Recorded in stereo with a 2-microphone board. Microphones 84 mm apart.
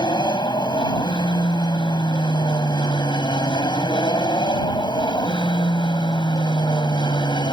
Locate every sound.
0.0 s an aircraft: 65° left (ahead or behind); by 7.5 s 70° left (ahead or behind)